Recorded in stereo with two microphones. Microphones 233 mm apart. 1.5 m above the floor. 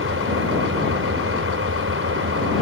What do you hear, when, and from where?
0.0 s an engine running: 60° right (ahead or behind)